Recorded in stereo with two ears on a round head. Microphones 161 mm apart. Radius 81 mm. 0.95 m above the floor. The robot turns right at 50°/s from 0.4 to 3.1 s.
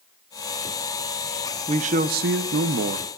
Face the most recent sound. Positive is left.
turn(degrees=-70)